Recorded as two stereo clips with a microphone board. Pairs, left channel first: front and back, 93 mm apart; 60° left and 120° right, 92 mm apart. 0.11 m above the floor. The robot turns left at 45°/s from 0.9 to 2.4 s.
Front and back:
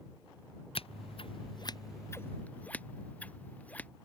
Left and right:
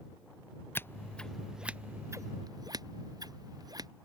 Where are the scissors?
5° right; by 3.9 s 75° right.